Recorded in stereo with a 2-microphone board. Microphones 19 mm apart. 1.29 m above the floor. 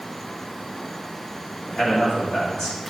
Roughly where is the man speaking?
Left.